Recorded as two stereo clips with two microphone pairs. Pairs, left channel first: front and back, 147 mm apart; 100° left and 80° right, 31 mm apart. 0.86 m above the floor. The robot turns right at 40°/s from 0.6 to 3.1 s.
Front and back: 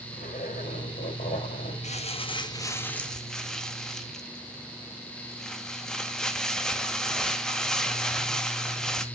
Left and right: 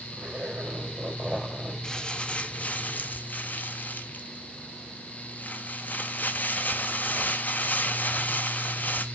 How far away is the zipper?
About 3 m.